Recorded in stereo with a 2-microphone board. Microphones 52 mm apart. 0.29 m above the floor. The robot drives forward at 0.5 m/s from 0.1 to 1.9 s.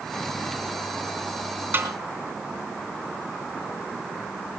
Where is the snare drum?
40° right (ahead or behind), 3 m; by 1.9 s 35° right (ahead or behind), 3 m.